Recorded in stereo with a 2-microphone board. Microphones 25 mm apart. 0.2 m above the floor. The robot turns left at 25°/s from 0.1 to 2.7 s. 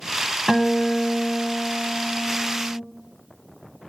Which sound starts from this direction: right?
A guitar, at 0.5 s.